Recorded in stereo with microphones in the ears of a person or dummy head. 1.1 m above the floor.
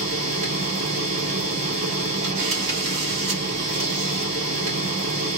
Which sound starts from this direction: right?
A machine running, at 0.0 s.